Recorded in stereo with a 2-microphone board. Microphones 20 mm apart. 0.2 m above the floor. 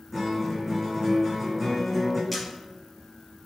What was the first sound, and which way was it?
A guitar, 15° right (ahead or behind).